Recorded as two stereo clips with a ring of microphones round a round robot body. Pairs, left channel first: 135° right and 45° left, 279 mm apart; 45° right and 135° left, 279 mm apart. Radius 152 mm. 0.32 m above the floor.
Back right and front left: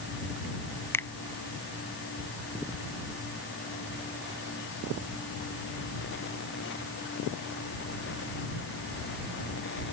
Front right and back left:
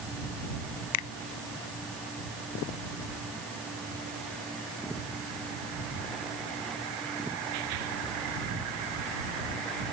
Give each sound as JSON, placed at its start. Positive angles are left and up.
{"t": 0.9, "sound": "a finger snap", "azimuth_deg": -55}